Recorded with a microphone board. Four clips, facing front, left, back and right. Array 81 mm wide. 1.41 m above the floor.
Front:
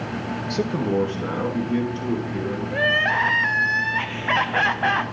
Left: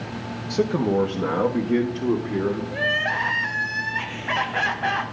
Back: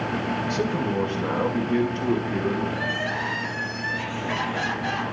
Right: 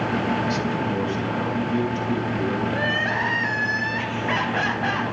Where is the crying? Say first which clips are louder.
Right 1 dB, front 6 dB; straight ahead, 0.6 m.